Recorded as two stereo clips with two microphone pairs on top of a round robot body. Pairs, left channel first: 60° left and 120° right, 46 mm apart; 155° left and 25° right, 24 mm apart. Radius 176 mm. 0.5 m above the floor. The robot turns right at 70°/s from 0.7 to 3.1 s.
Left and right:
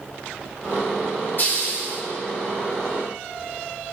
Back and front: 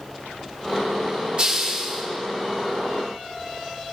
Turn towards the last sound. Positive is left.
turn(degrees=135)